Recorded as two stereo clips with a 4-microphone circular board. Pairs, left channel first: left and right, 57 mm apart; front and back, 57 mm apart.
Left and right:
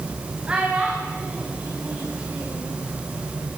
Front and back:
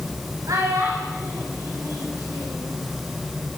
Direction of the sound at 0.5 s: 160° right.